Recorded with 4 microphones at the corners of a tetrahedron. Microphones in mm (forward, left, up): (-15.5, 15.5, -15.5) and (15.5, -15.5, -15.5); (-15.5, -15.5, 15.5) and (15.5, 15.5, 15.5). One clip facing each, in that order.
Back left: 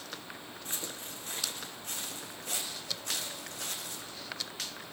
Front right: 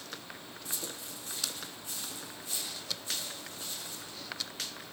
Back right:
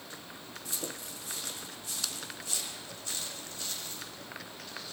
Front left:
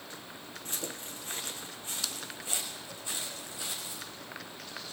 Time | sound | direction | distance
0.7 | footsteps | 95° left | 5 m